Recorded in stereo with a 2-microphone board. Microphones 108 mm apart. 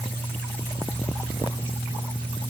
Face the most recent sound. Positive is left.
No sound to turn to.